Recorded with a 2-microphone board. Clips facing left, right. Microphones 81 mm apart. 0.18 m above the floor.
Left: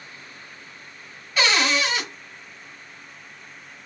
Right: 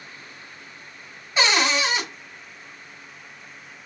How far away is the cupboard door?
About 1.3 m.